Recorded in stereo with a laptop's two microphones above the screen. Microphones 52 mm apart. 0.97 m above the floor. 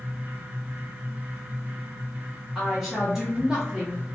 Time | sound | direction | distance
0.0 | a fan | 50° right (ahead or behind) | 1.5 m
2.5 | a woman speaking | 15° right (ahead or behind) | 0.6 m